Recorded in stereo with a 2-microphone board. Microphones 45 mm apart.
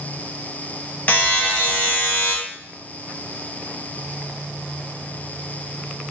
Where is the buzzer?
40° left (ahead or behind), 0.7 m.